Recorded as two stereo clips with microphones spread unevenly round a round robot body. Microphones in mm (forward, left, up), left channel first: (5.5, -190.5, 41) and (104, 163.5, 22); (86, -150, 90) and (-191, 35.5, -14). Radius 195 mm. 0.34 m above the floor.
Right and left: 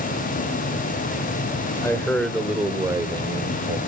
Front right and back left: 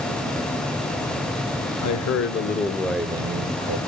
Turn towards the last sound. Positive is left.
turn(degrees=140)